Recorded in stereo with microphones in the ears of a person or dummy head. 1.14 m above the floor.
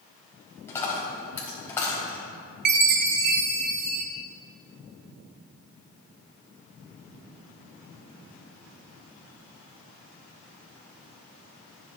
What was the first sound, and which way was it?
A dropped coin, 20° left (ahead or behind).